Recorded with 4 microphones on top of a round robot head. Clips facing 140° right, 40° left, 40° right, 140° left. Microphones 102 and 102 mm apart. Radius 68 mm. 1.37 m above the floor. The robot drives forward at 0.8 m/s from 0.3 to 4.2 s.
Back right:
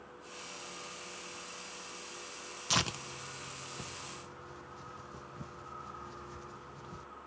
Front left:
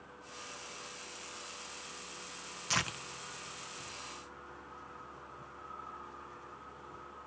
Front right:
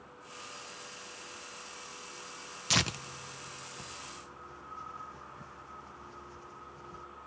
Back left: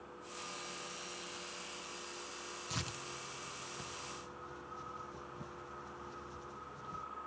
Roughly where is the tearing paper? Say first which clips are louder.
Back right 2 dB, front right 12 dB; ahead right.